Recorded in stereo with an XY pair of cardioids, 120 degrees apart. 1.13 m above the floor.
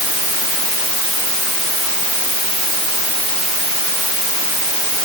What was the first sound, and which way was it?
Only background noise.